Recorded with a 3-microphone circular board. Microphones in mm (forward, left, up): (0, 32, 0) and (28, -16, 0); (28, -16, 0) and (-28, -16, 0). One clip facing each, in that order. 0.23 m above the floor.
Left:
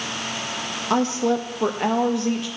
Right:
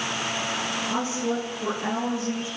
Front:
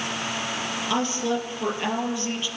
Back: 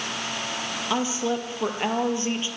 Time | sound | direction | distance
0.9 | a woman speaking | 100° left | 4.5 m